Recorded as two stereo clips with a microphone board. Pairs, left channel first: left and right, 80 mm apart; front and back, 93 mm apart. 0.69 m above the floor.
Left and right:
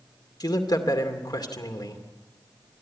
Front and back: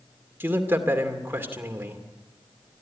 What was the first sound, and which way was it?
A man speaking, 115° left.